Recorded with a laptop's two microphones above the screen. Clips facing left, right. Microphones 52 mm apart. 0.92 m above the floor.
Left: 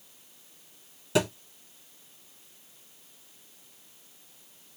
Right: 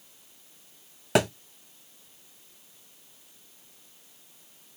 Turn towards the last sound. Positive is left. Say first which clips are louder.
# right 2 dB
turn(degrees=-65)  # may be behind; listen again after turning